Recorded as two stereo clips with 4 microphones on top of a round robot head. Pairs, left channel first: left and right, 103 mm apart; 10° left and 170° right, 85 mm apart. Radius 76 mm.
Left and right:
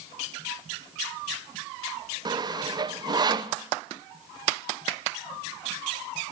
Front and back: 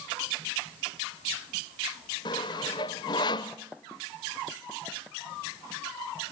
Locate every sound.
2.2 s sawing: 35° right, 0.7 m